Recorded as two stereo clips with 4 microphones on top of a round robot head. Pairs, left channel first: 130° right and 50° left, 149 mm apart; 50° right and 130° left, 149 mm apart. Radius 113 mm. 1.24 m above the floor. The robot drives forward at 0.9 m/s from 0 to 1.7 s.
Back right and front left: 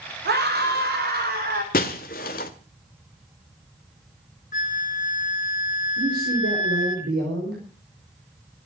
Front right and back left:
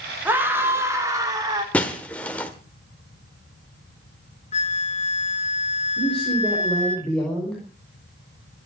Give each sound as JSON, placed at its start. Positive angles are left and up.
{"t": 0.2, "sound": "a scream", "azimuth_deg": 55, "distance_m": 5.0}
{"t": 1.7, "sound": "breaking glass", "azimuth_deg": -125, "distance_m": 1.0}
{"t": 4.5, "sound": "a flute", "azimuth_deg": -100, "distance_m": 2.5}
{"t": 6.0, "sound": "a man speaking", "azimuth_deg": 35, "distance_m": 5.5}